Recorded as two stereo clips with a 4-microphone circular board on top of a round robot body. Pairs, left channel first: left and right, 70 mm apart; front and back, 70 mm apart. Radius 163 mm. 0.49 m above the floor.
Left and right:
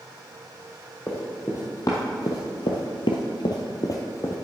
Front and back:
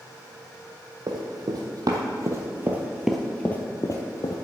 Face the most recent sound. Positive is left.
turn(degrees=35)